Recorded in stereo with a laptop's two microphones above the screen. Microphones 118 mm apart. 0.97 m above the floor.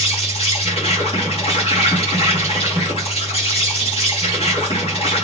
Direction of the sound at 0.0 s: 55° left (ahead or behind).